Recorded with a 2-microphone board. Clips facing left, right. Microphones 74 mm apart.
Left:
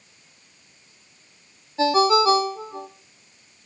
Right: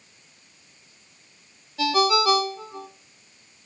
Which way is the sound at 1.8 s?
30° left (ahead or behind).